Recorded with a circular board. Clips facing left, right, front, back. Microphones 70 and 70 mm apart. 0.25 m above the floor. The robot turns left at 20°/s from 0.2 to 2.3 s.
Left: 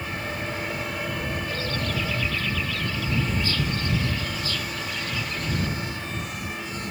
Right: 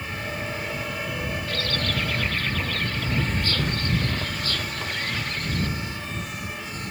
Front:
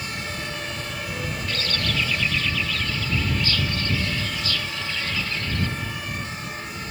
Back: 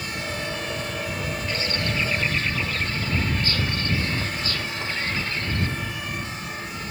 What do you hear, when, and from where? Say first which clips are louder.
1.5 s a bird: right 1 dB, even; 110° right; by 5.7 s 125° right